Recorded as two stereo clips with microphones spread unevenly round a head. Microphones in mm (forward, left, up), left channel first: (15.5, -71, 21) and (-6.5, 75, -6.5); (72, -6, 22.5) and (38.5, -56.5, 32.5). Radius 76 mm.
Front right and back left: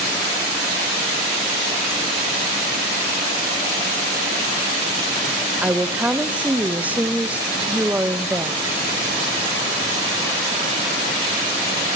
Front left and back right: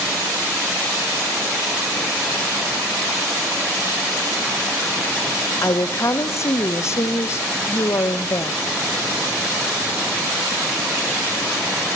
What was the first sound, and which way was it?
A woman speaking, 15° left.